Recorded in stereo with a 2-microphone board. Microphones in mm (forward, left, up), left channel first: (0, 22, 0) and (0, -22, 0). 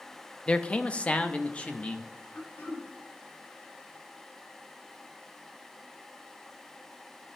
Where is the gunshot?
No gunshot in this recording.